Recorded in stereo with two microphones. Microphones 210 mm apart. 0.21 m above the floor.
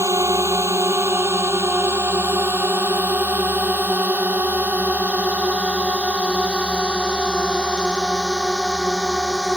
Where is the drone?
15° right (ahead or behind); by 9.6 s centre (ahead or behind).